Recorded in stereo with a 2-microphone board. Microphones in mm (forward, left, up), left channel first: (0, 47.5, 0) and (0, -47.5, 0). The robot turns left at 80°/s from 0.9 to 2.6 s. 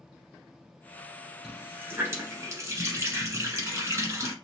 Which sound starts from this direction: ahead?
A running tap, at 1.4 s.